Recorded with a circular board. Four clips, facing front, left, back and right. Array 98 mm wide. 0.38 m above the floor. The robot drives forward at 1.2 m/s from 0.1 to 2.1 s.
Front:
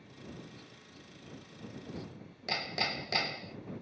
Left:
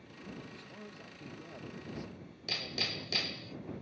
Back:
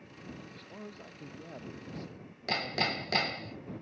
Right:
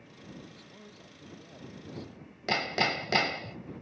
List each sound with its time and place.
0.5 s a man speaking: 165° left; by 3.5 s 170° left
2.5 s hammering: 105° right